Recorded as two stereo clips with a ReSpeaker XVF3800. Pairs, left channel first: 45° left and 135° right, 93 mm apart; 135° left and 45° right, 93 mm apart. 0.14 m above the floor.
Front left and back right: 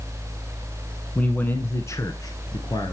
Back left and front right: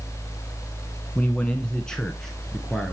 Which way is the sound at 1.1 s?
90° left.